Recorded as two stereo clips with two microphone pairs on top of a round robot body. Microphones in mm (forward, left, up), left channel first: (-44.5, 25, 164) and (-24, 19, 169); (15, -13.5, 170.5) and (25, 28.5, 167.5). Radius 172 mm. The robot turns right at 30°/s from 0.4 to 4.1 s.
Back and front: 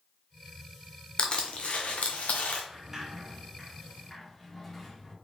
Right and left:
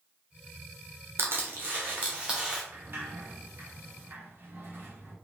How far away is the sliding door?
About 0.9 m.